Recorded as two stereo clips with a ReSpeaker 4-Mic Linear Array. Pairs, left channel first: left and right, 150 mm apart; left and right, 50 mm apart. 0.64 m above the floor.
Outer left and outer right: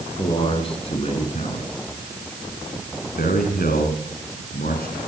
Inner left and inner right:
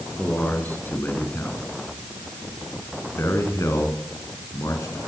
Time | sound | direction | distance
0.2 | a man speaking | 35° left (ahead or behind) | 6 m